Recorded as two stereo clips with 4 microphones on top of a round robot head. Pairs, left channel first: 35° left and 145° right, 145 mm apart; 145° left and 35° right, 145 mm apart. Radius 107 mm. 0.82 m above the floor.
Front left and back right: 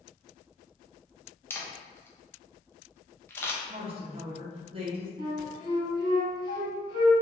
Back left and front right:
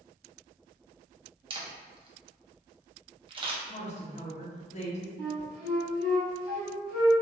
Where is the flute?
155° left, 1.6 m.